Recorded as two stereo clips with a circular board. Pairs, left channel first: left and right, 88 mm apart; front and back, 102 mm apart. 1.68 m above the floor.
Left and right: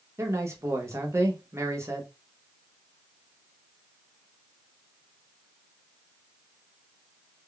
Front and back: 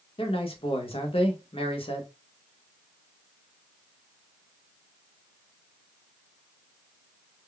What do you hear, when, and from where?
0.2 s a man speaking: 30° right, 0.8 m